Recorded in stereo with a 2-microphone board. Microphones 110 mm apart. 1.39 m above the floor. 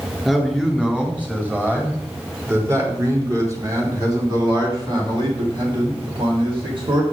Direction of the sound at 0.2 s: 5° right (ahead or behind).